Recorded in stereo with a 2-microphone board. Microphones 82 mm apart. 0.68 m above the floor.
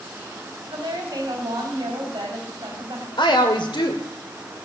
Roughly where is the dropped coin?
I don't hear a dropped coin.